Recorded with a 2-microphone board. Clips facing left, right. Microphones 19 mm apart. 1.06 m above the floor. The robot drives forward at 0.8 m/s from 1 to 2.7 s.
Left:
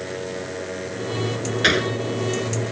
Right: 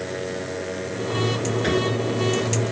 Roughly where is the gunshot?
Left.